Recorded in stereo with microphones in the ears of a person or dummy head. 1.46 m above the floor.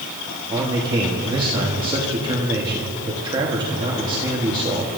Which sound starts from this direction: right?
A man speaking, at 0.5 s.